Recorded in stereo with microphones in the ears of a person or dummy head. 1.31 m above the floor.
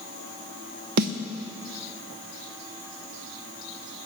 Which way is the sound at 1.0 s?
50° right (ahead or behind).